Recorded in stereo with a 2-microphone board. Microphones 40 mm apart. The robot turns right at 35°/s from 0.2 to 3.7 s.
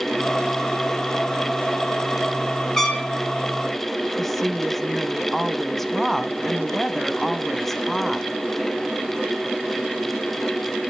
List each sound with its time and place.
2.8 s a trumpet: 10° left (ahead or behind), 2 m; by 3.1 s centre (ahead or behind), 2 m
4.2 s a woman speaking: 5° left (ahead or behind), 1.3 m